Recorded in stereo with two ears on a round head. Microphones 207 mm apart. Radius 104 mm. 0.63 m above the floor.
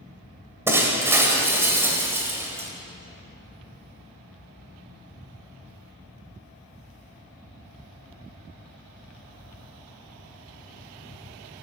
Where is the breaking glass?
10° right (ahead or behind), 1.9 m.